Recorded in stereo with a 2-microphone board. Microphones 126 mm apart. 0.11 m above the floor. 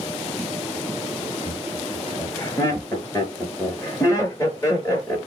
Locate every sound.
1.4 s laughter: 25° left (ahead or behind), 2 m